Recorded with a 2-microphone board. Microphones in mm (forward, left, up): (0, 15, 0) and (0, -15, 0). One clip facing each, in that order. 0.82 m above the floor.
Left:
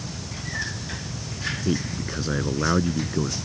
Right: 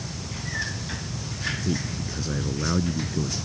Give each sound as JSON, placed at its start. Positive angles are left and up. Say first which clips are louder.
{"t": 1.6, "sound": "a man speaking", "louder": "left 2 dB", "side_deg": 25}